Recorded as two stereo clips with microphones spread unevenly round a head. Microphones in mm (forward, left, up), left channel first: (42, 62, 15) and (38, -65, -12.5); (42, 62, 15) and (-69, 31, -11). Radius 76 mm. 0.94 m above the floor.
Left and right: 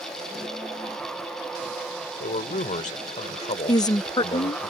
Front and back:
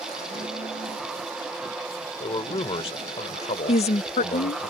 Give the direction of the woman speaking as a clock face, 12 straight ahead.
11 o'clock.